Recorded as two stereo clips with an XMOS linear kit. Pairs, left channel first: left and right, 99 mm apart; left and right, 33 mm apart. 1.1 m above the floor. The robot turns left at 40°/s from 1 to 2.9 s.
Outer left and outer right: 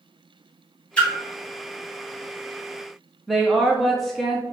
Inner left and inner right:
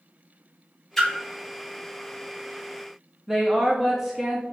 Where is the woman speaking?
Centre (ahead or behind), 0.5 m.